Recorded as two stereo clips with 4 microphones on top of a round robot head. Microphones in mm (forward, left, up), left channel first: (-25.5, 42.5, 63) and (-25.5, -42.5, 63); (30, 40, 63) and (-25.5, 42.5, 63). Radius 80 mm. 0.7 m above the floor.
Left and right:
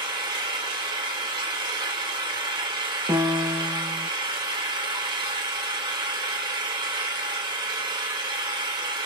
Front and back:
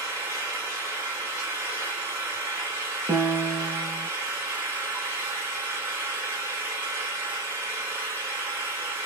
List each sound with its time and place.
0.0 s an engine running: 115° right, 3.5 m
3.1 s a piano: 140° right, 1.5 m